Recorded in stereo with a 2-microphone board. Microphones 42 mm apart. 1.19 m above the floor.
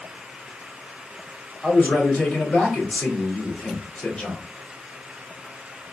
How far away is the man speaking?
About 2 m.